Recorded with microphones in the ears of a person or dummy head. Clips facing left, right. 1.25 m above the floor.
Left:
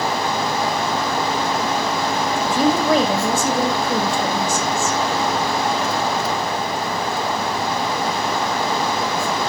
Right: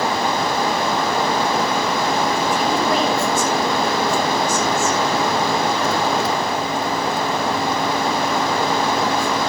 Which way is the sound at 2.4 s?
70° left (ahead or behind).